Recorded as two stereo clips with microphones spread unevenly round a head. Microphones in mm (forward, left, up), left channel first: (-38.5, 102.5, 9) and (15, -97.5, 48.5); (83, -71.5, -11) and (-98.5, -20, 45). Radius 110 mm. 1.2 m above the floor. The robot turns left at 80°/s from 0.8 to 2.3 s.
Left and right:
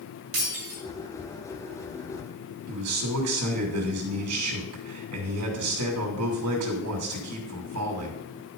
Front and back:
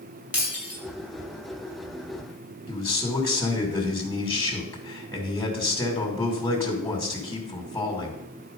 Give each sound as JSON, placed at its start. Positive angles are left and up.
{"t": 0.3, "sound": "breaking glass", "azimuth_deg": -115, "distance_m": 5.5}
{"t": 2.7, "sound": "a man speaking", "azimuth_deg": -85, "distance_m": 2.5}